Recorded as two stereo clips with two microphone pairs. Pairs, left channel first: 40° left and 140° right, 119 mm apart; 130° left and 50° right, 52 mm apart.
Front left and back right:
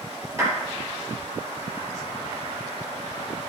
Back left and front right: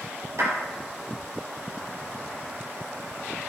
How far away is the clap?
About 5 m.